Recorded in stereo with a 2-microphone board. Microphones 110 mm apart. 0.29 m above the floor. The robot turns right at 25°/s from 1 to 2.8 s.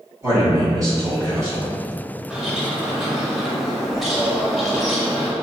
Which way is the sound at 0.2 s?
30° right (ahead or behind).